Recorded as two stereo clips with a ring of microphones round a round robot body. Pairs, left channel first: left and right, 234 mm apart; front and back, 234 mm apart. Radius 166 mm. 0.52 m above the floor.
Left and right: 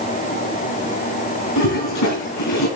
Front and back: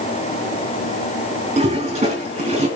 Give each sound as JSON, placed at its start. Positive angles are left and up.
{"t": 1.6, "sound": "a toilet flushing", "azimuth_deg": 120, "distance_m": 5.0}